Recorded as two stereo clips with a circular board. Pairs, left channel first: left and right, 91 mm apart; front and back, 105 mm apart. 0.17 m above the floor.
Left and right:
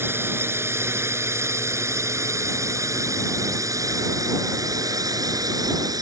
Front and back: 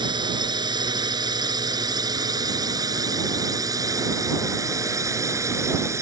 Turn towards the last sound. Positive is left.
turn(degrees=-125)